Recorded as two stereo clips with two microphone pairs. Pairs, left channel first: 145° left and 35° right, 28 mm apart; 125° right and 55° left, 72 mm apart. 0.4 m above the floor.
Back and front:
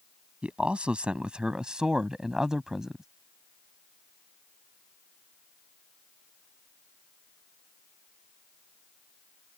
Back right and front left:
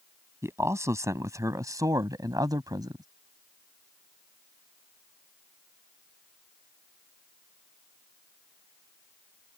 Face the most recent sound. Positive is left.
turn(degrees=40)